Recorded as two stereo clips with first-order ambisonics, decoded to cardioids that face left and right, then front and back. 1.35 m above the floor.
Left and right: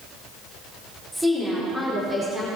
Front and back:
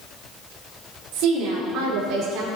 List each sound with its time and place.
1.1 s a woman speaking: 175° right, 4.5 m; by 2.5 s 170° right, 5.5 m